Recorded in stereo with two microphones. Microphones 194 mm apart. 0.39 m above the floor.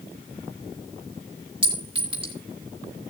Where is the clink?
25° right (ahead or behind), 4 m.